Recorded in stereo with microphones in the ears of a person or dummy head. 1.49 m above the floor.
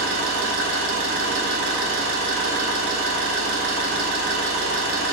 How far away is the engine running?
About 0.7 m.